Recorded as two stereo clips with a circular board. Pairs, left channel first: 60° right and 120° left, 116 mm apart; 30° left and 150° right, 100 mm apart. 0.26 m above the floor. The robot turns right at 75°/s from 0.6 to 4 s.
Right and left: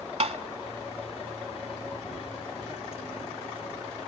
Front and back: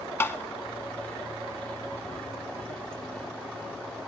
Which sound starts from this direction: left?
Tapping, at 0.2 s.